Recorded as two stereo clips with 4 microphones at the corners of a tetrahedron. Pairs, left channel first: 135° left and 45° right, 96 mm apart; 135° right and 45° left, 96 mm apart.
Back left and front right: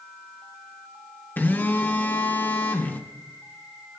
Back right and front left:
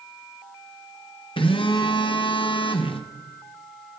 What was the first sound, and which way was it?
A phone buzzing, 155° right.